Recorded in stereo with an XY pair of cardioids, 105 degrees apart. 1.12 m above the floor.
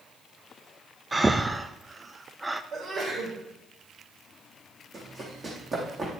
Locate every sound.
1.1 s breathing: 15° right, 0.5 m
2.7 s a sneeze: 55° right, 5 m
4.9 s running footsteps: 35° right, 3.5 m